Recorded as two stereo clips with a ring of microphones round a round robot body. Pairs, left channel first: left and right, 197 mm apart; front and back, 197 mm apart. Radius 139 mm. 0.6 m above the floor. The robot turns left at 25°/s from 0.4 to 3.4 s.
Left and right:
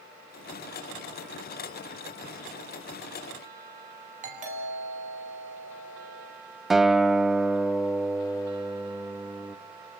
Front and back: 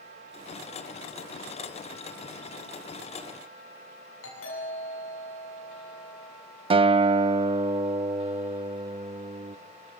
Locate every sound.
4.2 s a doorbell: 40° right, 8 m
6.7 s a guitar: straight behind, 0.7 m